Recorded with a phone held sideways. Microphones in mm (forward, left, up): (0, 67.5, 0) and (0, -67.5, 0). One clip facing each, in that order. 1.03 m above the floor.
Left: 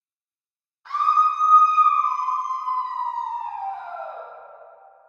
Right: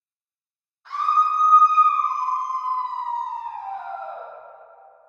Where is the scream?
70° left (ahead or behind), 0.6 m.